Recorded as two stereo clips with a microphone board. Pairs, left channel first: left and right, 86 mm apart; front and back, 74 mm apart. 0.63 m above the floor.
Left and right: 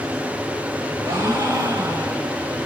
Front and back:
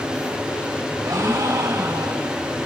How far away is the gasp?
About 3.5 m.